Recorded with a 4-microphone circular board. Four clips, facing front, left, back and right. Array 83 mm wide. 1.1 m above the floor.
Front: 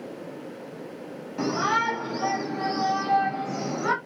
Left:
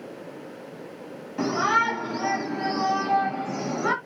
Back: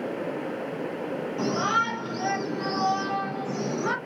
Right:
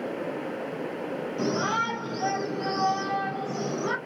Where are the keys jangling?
I don't hear keys jangling.